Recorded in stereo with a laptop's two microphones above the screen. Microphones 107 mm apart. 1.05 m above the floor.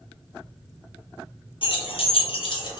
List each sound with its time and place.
1.6 s keys jangling: 55° left (ahead or behind), 0.6 m; by 2.8 s 45° left (ahead or behind), 0.6 m